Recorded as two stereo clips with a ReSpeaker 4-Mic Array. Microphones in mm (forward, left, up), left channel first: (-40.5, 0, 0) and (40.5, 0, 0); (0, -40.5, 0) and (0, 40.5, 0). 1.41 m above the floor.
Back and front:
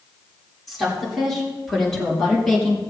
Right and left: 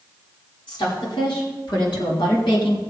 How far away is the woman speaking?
About 5 m.